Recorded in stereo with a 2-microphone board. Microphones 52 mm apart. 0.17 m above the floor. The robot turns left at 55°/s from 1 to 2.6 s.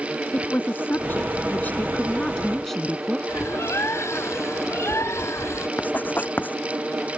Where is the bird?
70° left (ahead or behind).